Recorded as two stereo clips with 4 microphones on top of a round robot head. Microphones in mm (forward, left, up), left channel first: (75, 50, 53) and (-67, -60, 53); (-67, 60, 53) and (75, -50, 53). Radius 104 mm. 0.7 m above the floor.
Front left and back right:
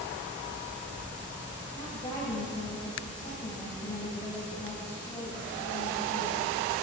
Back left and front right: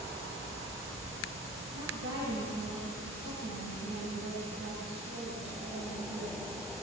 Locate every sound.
1.7 s a woman speaking: 25° right, 3.5 m